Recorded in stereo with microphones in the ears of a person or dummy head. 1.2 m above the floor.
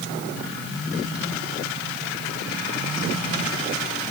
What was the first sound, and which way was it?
Only background noise.